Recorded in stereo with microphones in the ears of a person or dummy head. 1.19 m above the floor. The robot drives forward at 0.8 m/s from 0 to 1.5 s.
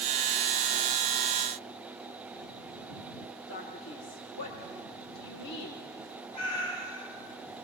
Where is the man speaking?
70° left (ahead or behind), 2.5 m.